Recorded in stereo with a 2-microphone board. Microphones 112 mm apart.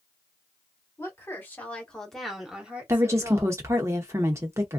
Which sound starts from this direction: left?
A woman speaking, at 1.0 s.